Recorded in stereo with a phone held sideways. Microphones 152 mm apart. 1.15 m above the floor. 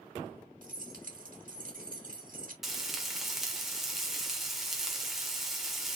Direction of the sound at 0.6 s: 65° right (ahead or behind).